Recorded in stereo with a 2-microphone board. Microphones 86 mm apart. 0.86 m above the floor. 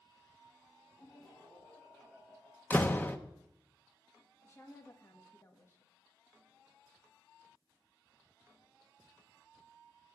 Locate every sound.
1.0 s laughter: 20° left (ahead or behind), 5 m; by 2.6 s centre (ahead or behind), 4 m
2.7 s a door slam: 20° left (ahead or behind), 0.7 m
4.4 s a woman speaking: 30° left (ahead or behind), 1.4 m